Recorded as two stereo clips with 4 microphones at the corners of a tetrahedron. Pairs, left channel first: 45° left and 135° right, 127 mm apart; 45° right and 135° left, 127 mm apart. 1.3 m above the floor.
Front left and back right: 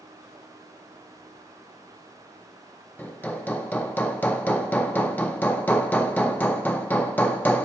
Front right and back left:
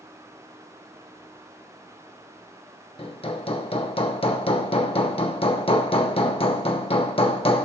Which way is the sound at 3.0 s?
25° right.